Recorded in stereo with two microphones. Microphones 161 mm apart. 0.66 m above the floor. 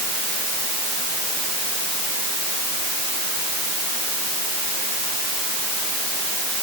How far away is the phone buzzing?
No phone buzzing in this recording.